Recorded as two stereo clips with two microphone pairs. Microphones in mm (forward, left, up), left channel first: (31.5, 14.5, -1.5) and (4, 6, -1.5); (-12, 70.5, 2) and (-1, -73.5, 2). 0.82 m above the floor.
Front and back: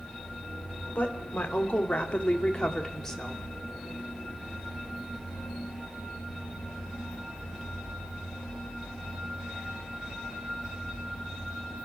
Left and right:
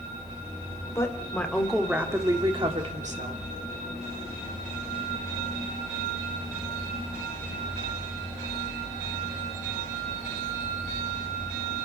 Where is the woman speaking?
25° left, 3 m; by 3.4 s 65° right, 2.5 m.